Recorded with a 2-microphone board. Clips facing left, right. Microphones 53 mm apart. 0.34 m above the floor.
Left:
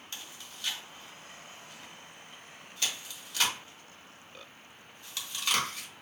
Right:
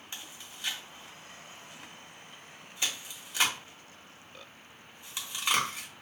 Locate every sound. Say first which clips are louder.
0.1 s chewing: right 1 dB; 20° right (ahead or behind), 1.1 m